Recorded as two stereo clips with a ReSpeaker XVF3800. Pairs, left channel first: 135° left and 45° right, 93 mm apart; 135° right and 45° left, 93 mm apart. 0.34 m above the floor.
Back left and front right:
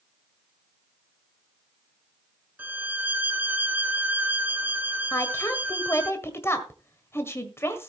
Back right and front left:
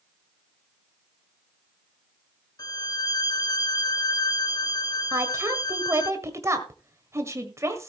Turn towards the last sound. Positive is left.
turn(degrees=85)